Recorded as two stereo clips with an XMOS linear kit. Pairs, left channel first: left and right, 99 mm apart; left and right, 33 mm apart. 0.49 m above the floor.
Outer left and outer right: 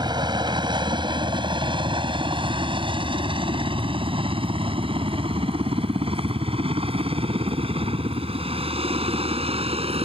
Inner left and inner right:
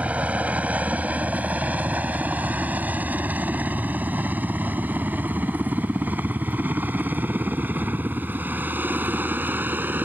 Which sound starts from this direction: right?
A helicopter, at 0.0 s.